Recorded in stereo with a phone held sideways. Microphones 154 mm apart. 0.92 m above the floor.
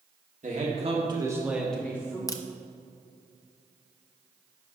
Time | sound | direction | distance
0.4 | a man speaking | 55° right (ahead or behind) | 1.6 m
2.3 | a crack | 25° left (ahead or behind) | 0.5 m